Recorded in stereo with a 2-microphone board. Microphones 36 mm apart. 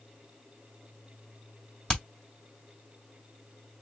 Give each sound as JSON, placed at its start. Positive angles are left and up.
{"t": 1.9, "sound": "hammering", "side_deg": 25, "distance_m": 1.7}